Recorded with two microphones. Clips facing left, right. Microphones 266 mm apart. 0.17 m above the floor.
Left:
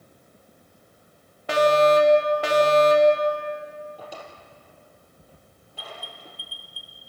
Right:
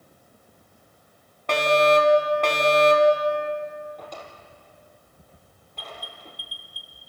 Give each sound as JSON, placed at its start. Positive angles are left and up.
{"t": 1.5, "sound": "a fire alarm", "side_deg": 5, "distance_m": 2.5}
{"t": 4.0, "sound": "a drawer", "side_deg": 10, "distance_m": 3.5}
{"t": 5.8, "sound": "an alarm", "side_deg": -15, "distance_m": 1.8}